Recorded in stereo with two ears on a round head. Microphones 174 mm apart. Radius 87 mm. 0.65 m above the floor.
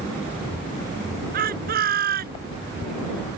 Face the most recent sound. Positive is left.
turn(degrees=-50)  # may be behind; listen again after turning